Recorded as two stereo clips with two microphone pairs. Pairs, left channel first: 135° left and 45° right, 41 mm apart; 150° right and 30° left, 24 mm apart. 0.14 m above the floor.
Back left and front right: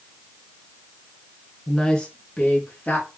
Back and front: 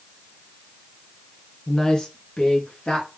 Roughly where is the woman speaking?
Behind right.